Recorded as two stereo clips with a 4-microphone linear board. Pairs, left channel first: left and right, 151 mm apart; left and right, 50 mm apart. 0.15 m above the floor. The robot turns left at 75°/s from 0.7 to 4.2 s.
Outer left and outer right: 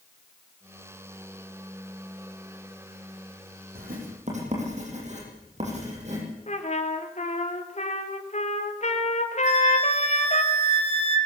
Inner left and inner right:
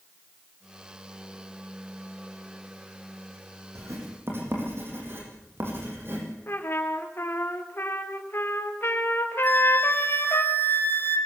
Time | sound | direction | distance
3.8 | writing | 80° right | 8 m
6.5 | a trumpet | 50° left (ahead or behind) | 2.5 m
9.4 | a flute | 45° left (ahead or behind) | 2 m